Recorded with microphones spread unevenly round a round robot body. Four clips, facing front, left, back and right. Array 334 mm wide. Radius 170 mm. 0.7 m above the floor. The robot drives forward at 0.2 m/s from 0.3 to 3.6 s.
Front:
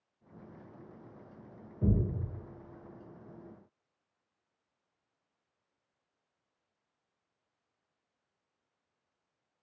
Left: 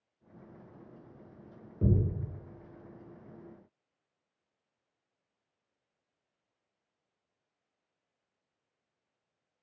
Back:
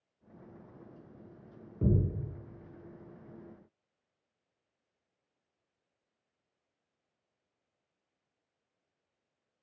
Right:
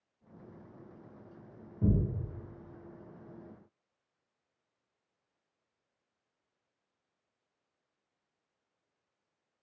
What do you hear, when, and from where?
1.8 s a thud: 125° left, 1.4 m